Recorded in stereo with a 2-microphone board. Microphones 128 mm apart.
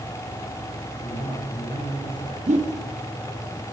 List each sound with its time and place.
1.0 s a man speaking: 45° left (ahead or behind), 6 m
2.5 s a whoosh: 70° right (ahead or behind), 2 m